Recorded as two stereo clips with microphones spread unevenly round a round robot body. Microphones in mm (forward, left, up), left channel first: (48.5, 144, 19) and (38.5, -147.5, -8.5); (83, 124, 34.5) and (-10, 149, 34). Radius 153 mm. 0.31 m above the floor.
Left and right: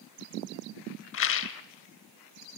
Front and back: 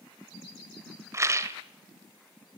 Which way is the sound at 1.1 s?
125° left.